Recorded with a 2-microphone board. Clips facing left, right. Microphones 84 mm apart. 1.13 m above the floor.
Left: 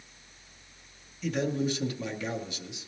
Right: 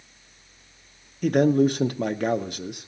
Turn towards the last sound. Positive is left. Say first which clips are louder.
# right 10 dB
turn(degrees=-55)  # may be behind; listen again after turning